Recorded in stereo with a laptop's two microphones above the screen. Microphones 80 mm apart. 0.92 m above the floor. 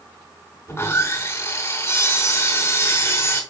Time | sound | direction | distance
0.7 | sawing | 30° left (ahead or behind) | 4 m